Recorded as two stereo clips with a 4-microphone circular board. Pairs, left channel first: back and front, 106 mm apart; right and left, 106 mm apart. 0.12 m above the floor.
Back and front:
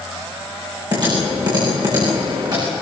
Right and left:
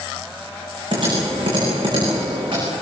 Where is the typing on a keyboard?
50° left, 9.5 m.